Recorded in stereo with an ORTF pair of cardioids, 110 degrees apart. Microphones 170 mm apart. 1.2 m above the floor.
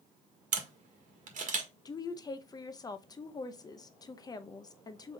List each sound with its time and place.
0.5 s a camera shutter: 50° right, 1.5 m
1.9 s a woman speaking: 25° left, 0.7 m